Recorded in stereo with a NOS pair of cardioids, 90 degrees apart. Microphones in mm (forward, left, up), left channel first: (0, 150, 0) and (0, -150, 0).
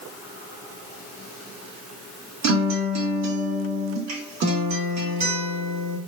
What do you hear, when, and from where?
2.4 s a guitar: 65° right, 1.9 m